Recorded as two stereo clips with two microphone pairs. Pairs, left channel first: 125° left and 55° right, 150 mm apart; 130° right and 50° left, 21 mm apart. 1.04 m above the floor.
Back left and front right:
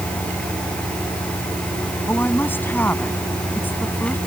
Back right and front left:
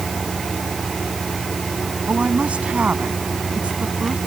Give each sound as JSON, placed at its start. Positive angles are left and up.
{"t": 2.1, "sound": "a woman speaking", "azimuth_deg": 50}